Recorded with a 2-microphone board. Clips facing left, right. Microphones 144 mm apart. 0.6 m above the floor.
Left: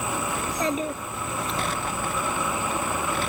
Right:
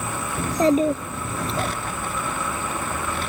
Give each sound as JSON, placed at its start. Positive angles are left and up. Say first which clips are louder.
{"t": 0.4, "sound": "a child speaking", "louder": "right 12 dB", "side_deg": -35}